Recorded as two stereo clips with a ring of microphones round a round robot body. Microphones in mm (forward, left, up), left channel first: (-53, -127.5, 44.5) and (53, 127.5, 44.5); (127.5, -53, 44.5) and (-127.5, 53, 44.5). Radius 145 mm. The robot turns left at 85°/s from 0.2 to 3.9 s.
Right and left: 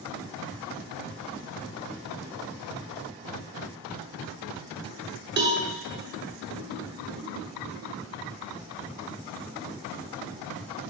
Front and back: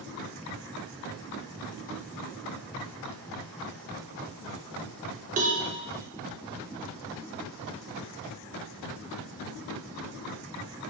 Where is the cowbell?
105° left, 0.6 m.